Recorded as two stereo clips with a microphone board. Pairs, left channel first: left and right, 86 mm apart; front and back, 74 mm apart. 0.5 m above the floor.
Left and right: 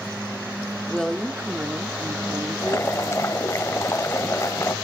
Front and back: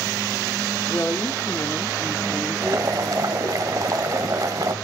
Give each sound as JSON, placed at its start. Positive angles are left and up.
{"t": 0.9, "sound": "a woman speaking", "azimuth_deg": 20, "distance_m": 0.9}
{"t": 2.6, "sound": "boiling", "azimuth_deg": 145, "distance_m": 1.0}